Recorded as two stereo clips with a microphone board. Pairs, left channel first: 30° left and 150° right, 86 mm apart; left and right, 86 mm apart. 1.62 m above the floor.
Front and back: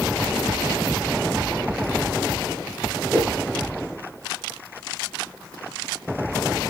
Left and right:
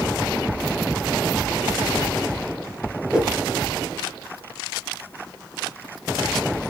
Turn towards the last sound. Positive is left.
turn(degrees=-150)